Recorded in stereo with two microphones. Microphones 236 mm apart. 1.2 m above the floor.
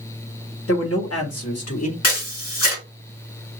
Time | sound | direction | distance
0.7 | a man speaking | 65° left (ahead or behind) | 1.6 m
2.0 | a camera shutter | 70° left (ahead or behind) | 3 m